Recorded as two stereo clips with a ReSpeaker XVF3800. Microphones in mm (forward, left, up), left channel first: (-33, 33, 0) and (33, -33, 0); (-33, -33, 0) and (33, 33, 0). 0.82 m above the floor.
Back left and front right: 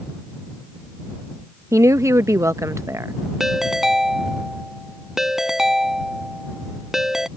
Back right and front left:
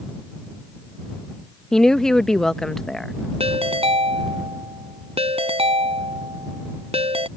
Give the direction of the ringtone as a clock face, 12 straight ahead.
11 o'clock.